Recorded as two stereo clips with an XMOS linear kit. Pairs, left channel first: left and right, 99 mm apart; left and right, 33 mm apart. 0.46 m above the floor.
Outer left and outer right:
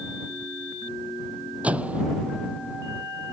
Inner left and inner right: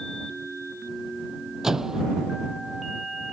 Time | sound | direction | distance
1.6 | a microwave | 15° right (ahead or behind) | ?